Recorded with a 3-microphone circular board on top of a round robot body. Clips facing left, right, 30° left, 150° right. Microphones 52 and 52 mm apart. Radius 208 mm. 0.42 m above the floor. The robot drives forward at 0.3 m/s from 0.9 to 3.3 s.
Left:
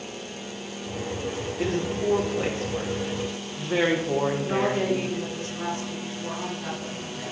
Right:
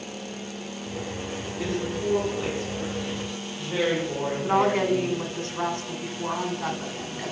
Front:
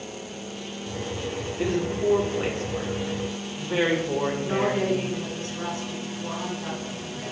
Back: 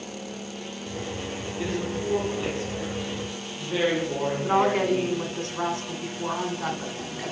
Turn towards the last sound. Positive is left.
turn(degrees=-130)